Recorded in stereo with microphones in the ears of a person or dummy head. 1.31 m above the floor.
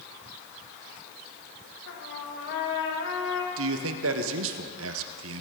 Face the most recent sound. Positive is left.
turn(degrees=-70)  # may be behind; listen again after turning